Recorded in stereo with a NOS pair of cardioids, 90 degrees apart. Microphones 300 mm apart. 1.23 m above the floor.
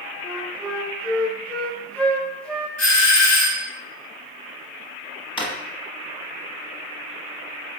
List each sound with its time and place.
0.2 s a flute: 5° left, 0.6 m
2.8 s a doorbell: 65° left, 1.6 m
5.4 s a drawer: 15° left, 1.0 m